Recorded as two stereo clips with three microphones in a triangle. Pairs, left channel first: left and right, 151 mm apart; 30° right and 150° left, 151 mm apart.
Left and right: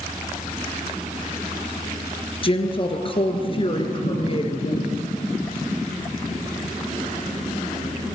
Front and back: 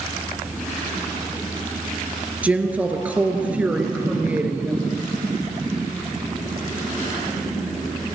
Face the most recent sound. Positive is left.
turn(degrees=75)